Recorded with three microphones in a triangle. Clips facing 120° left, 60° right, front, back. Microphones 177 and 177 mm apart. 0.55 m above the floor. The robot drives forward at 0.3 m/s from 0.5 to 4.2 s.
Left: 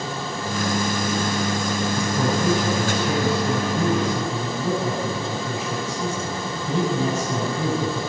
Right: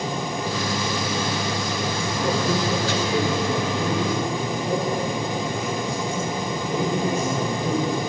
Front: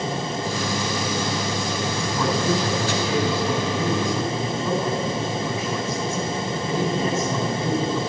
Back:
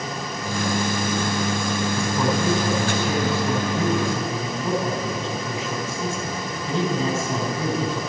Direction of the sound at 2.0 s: 105° left.